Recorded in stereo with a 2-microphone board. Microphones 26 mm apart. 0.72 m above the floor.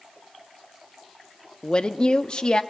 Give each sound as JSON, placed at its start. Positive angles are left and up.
{"t": 1.6, "sound": "a woman speaking", "side_deg": 45, "distance_m": 1.1}